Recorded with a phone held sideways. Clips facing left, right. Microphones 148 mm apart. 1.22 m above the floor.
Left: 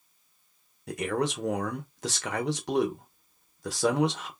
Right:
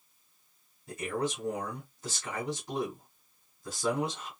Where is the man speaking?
80° left, 0.7 m.